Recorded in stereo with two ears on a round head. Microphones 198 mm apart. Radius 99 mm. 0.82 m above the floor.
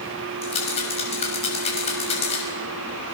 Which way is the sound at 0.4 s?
30° left (ahead or behind).